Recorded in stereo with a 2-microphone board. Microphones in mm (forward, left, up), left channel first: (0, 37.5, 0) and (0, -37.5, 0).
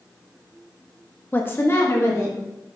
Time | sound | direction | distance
1.3 | a woman speaking | 25° left (ahead or behind) | 1.0 m